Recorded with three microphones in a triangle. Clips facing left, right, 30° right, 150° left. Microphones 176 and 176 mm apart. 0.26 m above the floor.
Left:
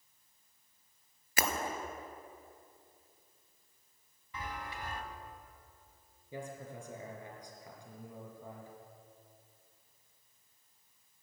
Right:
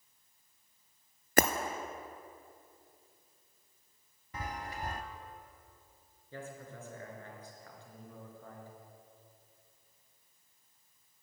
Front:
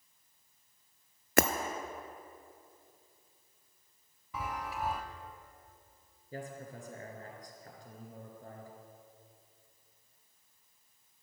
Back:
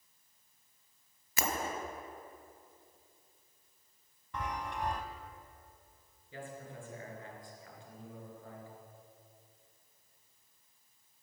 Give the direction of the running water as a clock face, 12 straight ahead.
I don't hear running water.